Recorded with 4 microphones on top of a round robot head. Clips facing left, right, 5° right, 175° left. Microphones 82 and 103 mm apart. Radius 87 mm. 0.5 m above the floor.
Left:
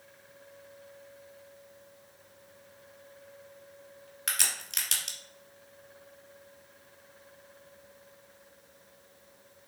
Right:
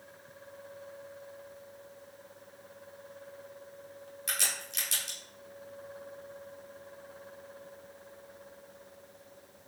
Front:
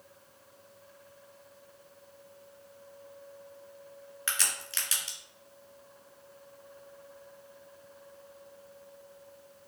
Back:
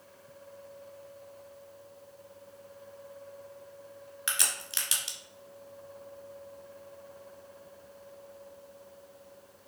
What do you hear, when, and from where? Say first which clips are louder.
4.3 s a crack: left 1 dB, even; 100° left, 1.8 m